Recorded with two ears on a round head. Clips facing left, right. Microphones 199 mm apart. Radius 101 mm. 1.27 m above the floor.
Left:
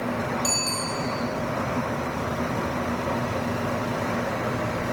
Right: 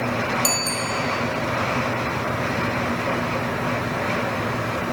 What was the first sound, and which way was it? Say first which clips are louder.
A bicycle bell: right 3 dB; 40° right (ahead or behind).